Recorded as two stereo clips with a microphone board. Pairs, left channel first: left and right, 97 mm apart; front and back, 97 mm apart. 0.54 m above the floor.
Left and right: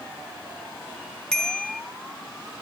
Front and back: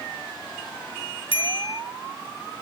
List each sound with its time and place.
1.3 s a bicycle bell: 5° left, 3.5 m